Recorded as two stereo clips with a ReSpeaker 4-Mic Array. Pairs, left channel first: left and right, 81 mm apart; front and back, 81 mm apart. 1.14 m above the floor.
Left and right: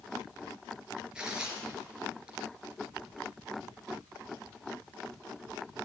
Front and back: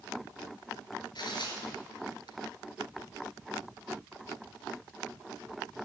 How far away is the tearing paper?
About 3 m.